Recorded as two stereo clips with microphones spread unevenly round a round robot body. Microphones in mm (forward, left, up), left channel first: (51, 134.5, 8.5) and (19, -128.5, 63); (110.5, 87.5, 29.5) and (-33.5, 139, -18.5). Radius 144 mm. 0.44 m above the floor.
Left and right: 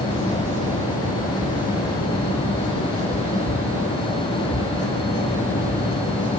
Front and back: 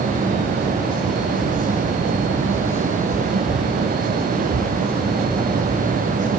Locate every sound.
Only background noise.